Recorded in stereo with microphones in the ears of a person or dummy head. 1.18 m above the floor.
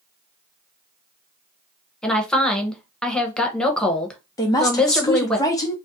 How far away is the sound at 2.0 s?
About 0.7 m.